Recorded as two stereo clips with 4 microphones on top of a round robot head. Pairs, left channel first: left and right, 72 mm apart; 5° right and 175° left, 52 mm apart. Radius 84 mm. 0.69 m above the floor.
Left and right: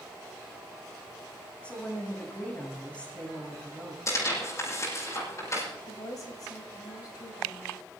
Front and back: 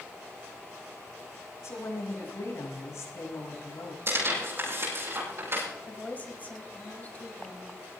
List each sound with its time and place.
1.6 s a woman speaking: 15° left, 6 m
4.1 s tearing paper: 140° left, 9.5 m
5.9 s a woman speaking: 55° left, 4.5 m